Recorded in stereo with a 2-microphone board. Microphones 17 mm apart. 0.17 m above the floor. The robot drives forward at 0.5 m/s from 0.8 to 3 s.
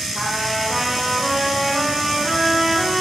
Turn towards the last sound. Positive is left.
turn(degrees=0)  # may be behind; listen again after turning